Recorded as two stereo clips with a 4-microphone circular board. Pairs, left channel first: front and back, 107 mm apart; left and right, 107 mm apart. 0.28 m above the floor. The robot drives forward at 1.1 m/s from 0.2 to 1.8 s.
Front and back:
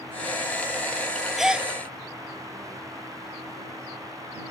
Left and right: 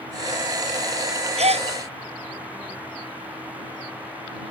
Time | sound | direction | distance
1.4 | a gasp | 90° right | ?